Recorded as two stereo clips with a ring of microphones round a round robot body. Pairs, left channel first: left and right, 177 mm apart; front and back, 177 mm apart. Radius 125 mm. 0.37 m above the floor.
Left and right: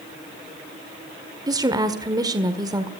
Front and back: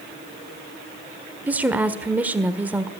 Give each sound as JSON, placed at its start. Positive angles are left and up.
{"t": 1.5, "sound": "a woman speaking", "azimuth_deg": -110, "distance_m": 1.4}